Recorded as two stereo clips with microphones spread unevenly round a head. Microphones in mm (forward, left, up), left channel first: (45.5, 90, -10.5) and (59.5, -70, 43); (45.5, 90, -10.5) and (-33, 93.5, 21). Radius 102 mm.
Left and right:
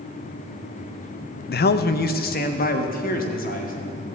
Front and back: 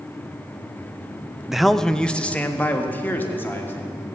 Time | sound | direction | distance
1.5 | a man speaking | 85° left | 0.6 m